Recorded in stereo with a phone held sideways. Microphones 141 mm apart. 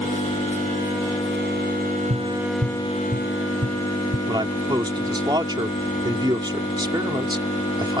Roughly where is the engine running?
Left.